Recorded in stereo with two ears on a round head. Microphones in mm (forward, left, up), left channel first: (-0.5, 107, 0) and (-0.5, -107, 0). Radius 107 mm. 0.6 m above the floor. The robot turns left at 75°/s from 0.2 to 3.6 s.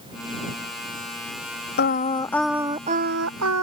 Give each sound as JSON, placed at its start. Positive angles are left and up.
{"t": 1.8, "sound": "singing", "azimuth_deg": 50}